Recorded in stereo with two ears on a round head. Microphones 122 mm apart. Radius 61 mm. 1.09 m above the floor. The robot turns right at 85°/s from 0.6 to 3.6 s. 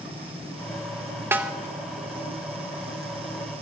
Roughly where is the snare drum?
Centre.